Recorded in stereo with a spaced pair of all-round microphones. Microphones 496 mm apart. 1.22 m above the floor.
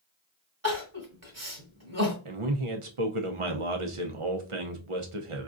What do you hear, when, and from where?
0.6 s crying: 30° right (ahead or behind), 1.4 m
2.2 s a man speaking: 80° right, 0.8 m